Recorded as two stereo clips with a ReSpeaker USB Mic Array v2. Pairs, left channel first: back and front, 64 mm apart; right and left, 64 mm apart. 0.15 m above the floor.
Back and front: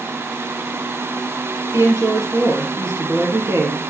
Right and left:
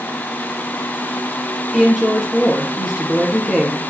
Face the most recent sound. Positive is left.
turn(degrees=-5)